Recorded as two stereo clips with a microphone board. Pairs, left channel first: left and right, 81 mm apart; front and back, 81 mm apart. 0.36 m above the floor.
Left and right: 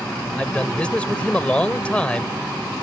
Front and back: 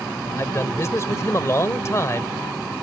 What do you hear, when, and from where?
0.4 s a man speaking: 25° left